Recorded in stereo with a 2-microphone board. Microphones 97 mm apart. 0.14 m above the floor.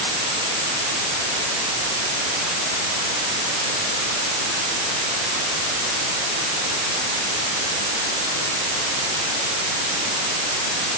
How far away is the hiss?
No hiss in this recording.